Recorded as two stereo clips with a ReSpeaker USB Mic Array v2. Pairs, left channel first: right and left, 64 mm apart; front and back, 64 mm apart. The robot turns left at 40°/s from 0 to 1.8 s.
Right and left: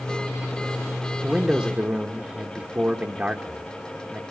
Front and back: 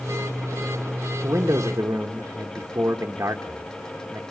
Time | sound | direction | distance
1.2 | a man speaking | 175° left | 0.9 m